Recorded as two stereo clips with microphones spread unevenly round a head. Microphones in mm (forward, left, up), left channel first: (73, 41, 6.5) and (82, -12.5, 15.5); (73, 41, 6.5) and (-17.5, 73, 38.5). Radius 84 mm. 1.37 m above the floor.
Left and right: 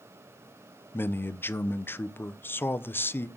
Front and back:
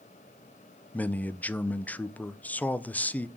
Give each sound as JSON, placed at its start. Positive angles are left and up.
{"t": 0.9, "sound": "a man speaking", "azimuth_deg": 50, "distance_m": 0.7}